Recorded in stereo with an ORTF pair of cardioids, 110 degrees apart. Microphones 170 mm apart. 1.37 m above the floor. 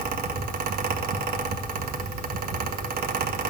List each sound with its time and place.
0.0 s a fan: 60° right, 1.5 m